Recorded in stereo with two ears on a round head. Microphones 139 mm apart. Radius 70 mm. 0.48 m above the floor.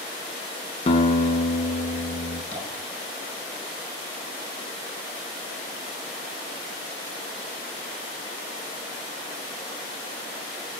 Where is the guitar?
40° left (ahead or behind), 1.1 m.